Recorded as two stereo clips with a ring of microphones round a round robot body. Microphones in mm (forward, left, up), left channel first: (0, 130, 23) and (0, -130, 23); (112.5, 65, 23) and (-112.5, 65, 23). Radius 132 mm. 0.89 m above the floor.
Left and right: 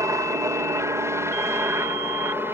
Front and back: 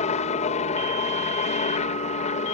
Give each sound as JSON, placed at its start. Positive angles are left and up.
{"t": 0.0, "sound": "a helicopter", "azimuth_deg": -20}